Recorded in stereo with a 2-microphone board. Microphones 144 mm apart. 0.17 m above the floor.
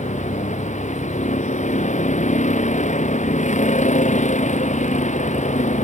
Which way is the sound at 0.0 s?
55° left (ahead or behind).